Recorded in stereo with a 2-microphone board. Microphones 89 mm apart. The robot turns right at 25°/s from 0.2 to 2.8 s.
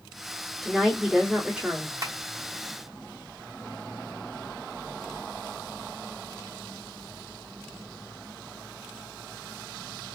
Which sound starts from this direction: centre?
A woman speaking, at 0.6 s.